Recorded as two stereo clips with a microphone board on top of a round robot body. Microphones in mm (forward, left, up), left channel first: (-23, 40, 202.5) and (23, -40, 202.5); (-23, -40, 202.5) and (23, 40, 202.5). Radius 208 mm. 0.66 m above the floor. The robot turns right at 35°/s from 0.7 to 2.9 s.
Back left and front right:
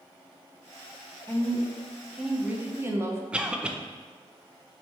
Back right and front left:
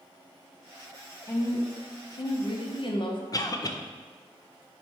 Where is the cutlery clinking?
No cutlery clinking in this recording.